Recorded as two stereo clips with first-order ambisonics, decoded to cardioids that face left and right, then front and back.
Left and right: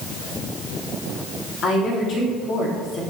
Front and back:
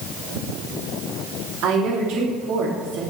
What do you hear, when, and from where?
1.6 s a woman speaking: 150° left, 3 m